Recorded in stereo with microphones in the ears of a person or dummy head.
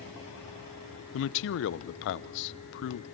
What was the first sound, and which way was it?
A man speaking, 75° left (ahead or behind).